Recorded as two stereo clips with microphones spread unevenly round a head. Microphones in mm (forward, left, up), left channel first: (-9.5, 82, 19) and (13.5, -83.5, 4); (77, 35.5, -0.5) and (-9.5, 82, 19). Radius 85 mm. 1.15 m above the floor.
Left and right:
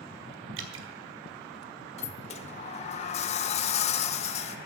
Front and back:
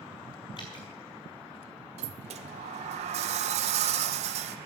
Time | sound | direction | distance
0.6 | dripping | 95° right | 1.6 m
2.0 | a sliding door | 150° left | 0.9 m